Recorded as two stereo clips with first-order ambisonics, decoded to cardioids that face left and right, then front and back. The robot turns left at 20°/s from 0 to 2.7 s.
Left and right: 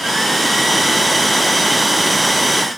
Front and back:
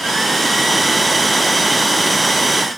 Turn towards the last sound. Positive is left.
No sound to turn to.